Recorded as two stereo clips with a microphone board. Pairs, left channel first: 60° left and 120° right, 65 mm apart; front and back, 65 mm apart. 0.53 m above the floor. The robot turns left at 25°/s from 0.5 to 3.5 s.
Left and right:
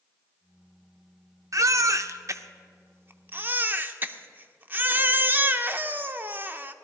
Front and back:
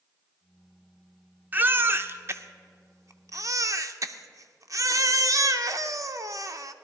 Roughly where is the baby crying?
Behind right.